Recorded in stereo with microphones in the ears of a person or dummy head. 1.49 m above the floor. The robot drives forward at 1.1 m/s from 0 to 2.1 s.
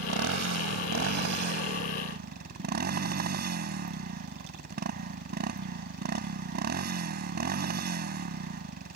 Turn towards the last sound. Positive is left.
turn(degrees=-50)  # may be behind; listen again after turning